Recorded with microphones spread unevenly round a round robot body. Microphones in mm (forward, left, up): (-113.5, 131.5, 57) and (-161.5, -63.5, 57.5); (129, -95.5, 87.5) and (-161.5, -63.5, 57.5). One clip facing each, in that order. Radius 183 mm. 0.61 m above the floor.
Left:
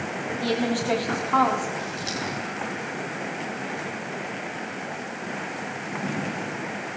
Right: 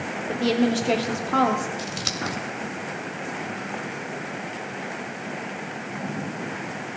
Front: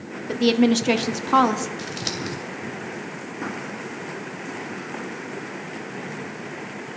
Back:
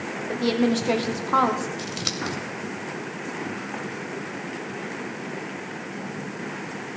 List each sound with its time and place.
0.3 s a woman speaking: 45° right, 1.4 m
1.8 s scissors: 105° right, 2 m